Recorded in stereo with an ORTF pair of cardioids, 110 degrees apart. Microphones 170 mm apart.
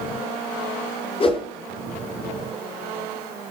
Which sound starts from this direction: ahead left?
A whoosh, at 1.2 s.